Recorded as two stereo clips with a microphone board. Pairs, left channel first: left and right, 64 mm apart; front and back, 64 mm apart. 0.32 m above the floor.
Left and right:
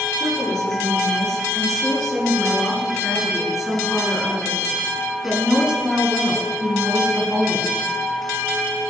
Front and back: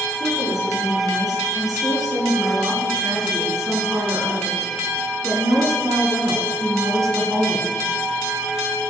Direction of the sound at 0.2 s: 170° left.